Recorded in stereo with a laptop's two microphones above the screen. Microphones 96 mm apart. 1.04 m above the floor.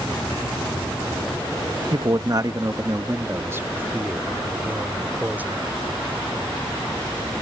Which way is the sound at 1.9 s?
50° right (ahead or behind).